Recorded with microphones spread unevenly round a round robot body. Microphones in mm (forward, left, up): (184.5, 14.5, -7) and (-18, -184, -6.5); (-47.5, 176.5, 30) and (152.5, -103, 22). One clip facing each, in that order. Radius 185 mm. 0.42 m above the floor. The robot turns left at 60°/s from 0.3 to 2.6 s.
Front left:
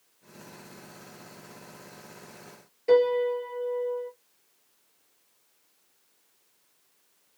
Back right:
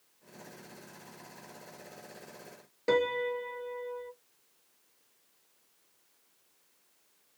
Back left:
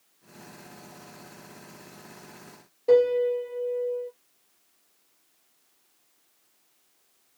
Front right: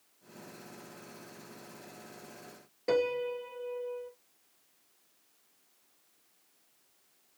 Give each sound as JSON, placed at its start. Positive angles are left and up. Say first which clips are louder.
{"t": 2.9, "sound": "a piano", "louder": "front left 8 dB, back left 10 dB", "azimuth_deg": -110, "distance_m": 1.2}